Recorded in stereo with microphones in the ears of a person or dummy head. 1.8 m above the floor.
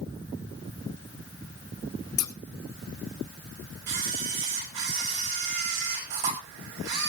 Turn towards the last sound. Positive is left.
turn(degrees=-60)  # may be behind; listen again after turning